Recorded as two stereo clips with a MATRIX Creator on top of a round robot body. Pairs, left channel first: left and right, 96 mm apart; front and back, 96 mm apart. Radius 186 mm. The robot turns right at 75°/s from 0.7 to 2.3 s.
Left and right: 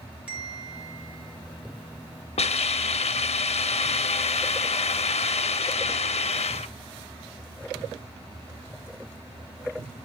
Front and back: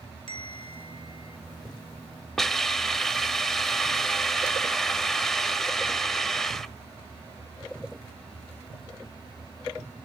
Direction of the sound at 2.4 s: 85° left.